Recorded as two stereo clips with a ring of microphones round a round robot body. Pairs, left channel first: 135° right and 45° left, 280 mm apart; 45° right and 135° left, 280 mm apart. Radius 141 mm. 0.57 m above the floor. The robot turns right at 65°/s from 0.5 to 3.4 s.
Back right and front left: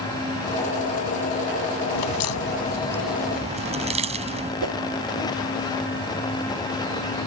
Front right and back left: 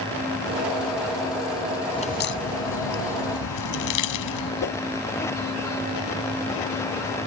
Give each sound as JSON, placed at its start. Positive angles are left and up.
{"t": 1.9, "sound": "a crack", "azimuth_deg": -120}
{"t": 4.6, "sound": "a whoosh", "azimuth_deg": 5}